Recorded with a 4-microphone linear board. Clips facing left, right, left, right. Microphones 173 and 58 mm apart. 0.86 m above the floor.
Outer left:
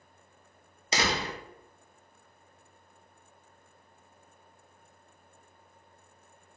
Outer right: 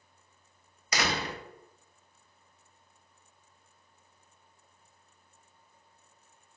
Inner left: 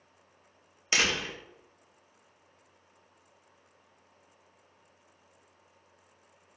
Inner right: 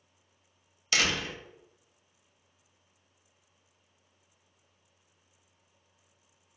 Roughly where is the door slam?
Left.